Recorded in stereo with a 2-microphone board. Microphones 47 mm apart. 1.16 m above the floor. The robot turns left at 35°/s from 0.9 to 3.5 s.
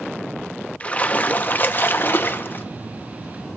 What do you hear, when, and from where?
0.8 s a splash: 135° left, 0.6 m; by 2.6 s 75° left, 0.6 m